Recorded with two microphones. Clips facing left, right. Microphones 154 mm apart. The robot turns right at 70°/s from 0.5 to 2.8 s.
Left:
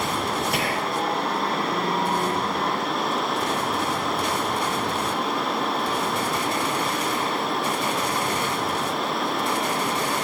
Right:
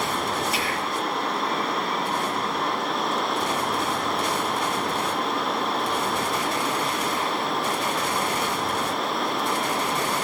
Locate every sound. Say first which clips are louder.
0.5 s whispering: left 2 dB; 65° left, 5.5 m; by 1.0 s 95° left, 5.5 m